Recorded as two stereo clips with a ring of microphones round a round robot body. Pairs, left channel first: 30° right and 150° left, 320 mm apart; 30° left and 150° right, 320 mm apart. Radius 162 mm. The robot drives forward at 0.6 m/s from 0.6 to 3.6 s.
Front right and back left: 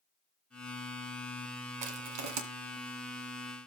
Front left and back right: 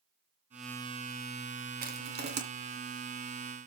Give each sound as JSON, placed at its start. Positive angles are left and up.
{"t": 1.8, "sound": "crushing", "azimuth_deg": 145, "distance_m": 2.0}